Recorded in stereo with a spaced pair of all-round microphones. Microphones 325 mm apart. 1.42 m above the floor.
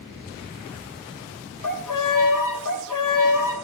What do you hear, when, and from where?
1.6 s a violin: 70° left (ahead or behind), 0.7 m